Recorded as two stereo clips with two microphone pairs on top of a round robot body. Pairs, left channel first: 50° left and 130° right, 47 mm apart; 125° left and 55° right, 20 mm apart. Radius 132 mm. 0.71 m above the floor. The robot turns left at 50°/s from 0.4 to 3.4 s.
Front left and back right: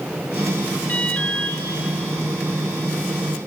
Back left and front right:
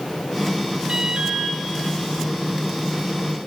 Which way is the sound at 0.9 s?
10° right.